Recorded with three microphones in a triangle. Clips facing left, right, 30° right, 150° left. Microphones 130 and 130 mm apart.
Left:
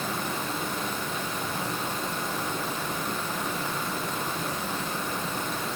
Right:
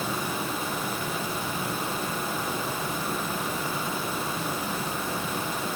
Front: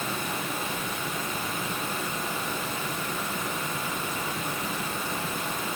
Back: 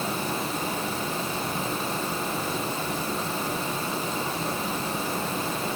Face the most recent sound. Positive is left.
No sound to turn to.